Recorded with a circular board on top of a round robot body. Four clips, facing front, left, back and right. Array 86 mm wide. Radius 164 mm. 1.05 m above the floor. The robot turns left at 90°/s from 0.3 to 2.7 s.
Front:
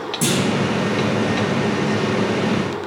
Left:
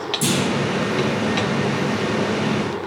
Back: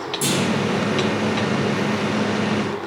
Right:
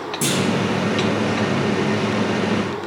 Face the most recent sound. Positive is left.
turn(degrees=100)